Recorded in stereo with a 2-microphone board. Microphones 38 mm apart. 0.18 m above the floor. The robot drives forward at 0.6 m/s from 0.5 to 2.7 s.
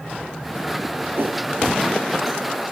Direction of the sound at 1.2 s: 70° right (ahead or behind).